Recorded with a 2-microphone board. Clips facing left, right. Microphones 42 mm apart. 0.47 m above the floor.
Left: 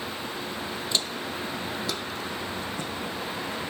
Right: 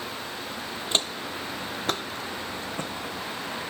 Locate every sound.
0.9 s footsteps: 45° right (ahead or behind), 0.6 m